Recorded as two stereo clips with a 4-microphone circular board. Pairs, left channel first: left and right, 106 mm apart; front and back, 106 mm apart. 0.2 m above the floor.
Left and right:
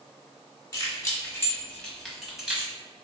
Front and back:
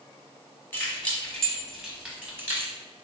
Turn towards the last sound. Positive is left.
turn(degrees=-150)